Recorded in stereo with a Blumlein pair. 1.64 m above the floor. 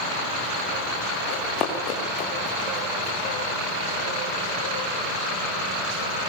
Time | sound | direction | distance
1.3 | running footsteps | 35° left | 6.5 m